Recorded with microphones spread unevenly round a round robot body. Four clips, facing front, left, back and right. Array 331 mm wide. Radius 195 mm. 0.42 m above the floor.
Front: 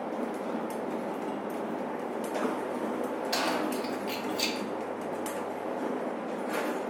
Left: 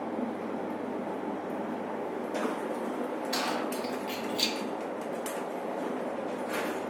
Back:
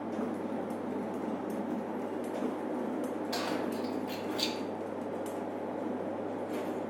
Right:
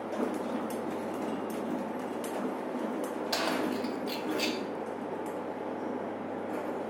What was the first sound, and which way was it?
Keys jangling, 70° right.